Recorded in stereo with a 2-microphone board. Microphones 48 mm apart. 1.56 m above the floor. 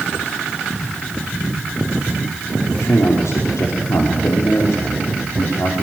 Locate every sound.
2.7 s a man speaking: 85° left, 5 m